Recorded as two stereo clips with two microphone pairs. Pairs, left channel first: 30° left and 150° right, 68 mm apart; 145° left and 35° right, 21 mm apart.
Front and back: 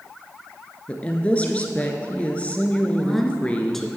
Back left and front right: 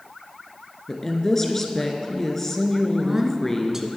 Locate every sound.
0.9 s a woman speaking: 80° left, 1.2 m
2.9 s a woman speaking: 50° right, 1.1 m